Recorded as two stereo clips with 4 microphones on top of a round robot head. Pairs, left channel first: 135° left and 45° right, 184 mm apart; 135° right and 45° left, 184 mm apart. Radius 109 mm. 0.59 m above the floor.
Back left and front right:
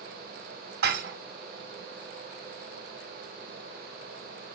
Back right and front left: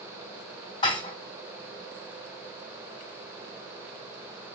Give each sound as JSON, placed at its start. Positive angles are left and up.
{"t": 0.8, "sound": "dishes clattering", "azimuth_deg": -70, "distance_m": 2.0}